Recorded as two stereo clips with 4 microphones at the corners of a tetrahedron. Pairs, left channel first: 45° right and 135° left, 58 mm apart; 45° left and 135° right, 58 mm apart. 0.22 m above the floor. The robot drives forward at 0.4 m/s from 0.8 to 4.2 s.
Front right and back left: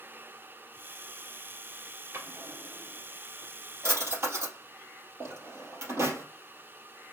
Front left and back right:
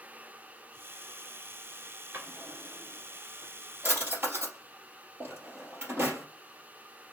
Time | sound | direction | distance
2.1 | a drawer | 170° left | 1.8 m